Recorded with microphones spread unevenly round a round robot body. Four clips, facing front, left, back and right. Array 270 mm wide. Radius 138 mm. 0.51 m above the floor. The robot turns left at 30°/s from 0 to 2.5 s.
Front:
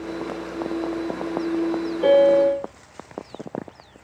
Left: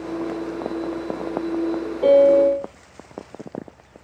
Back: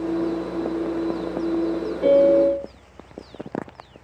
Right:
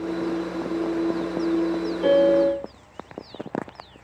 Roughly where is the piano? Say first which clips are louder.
Left 4 dB, even; behind left.